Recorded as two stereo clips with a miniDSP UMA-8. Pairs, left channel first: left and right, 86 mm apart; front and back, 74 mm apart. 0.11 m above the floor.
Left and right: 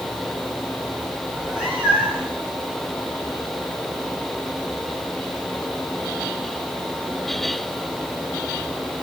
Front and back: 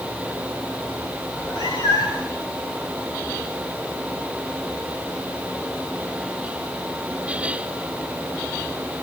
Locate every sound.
1.3 s a cat meowing: 5° right, 8 m